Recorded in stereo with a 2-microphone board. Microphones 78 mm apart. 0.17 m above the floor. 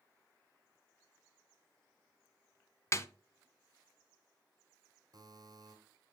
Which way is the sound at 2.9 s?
35° left (ahead or behind).